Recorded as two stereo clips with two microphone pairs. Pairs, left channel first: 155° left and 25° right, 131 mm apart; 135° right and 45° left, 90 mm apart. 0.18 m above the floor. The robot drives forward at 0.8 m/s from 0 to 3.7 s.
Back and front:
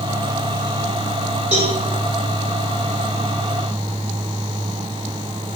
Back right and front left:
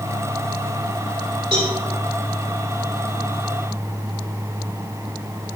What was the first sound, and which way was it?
A cowbell, 15° left.